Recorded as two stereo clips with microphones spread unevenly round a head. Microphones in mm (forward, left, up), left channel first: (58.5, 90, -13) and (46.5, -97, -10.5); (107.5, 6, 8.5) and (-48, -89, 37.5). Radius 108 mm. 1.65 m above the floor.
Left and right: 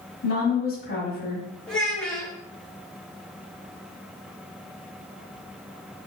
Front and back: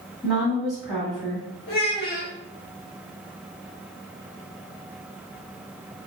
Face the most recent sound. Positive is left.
turn(degrees=0)